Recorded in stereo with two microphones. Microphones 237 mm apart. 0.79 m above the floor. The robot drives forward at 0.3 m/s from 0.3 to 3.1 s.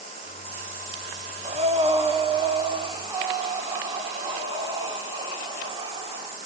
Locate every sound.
1.4 s breathing: 30° right (ahead or behind), 1.0 m; by 6.4 s 20° right (ahead or behind), 1.4 m